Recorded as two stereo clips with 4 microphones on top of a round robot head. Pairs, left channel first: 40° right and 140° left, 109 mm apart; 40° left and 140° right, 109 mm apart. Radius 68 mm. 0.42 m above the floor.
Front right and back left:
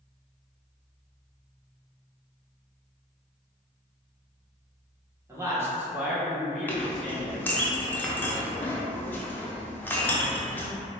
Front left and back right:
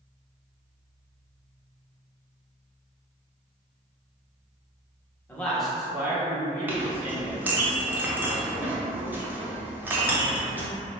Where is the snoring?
No snoring in this recording.